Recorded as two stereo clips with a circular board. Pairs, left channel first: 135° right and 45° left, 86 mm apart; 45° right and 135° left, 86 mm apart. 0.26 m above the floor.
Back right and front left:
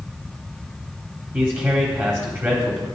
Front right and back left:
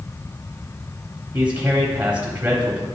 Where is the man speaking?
85° left, 1.2 m.